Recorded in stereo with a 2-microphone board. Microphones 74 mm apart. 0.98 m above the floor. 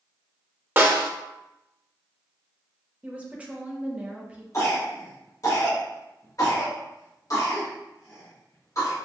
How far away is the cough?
About 1.8 m.